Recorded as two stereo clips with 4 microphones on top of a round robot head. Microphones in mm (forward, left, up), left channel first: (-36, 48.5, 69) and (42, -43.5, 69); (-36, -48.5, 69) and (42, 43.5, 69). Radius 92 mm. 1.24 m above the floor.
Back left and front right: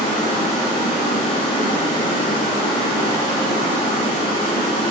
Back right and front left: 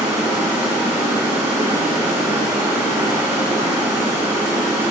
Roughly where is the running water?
Behind left.